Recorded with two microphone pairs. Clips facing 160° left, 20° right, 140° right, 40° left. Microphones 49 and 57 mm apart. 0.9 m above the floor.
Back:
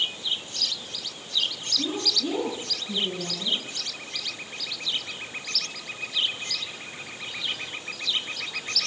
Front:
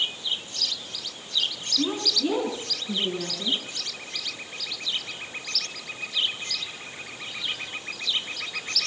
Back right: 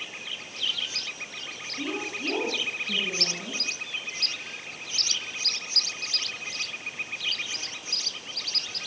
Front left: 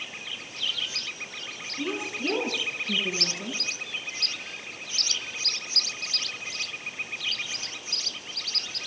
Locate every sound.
1.8 s a woman speaking: 40° right, 9 m; by 3.6 s 35° right, 9 m